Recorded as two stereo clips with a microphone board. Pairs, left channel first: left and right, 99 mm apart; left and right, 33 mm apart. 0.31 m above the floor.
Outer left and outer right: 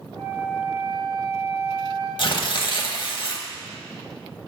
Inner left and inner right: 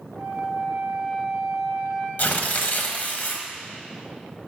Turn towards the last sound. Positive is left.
turn(degrees=55)  # may be behind; listen again after turning